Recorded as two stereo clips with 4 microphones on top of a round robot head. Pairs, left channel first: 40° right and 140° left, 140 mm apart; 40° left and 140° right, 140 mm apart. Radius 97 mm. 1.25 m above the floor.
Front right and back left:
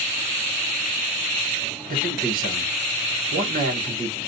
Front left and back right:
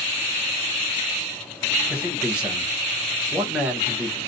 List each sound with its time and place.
1.9 s a man speaking: 135° left, 1.6 m